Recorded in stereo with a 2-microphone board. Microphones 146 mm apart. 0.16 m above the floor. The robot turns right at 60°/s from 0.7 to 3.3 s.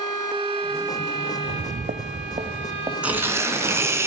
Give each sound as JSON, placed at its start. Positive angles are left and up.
{"t": 1.4, "sound": "footsteps", "side_deg": -75, "distance_m": 0.6}
{"t": 3.0, "sound": "tearing paper", "side_deg": -10, "distance_m": 2.0}